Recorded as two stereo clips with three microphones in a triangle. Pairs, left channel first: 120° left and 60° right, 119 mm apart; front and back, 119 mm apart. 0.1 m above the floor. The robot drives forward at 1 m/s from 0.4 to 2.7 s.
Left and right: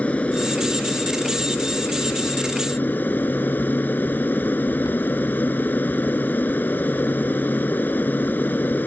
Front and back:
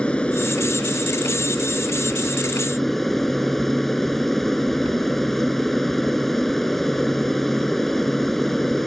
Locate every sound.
0.0 s an aircraft: 65° left; by 8.9 s 85° left